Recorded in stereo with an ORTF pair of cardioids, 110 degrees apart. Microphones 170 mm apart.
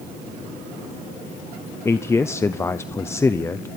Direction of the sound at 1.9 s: 15° left.